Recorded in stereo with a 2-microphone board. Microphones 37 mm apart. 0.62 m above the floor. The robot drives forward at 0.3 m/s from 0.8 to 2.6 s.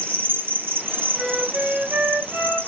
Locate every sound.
0.0 s an insect: 75° right (ahead or behind), 1.2 m; by 2.7 s 65° right (ahead or behind), 1.3 m
1.1 s a flute: 40° right (ahead or behind), 3.5 m; by 2.7 s 35° right (ahead or behind), 4 m